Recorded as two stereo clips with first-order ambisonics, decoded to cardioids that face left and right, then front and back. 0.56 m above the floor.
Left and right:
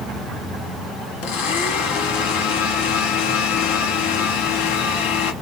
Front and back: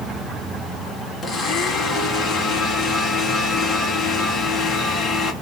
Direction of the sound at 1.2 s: 75° left.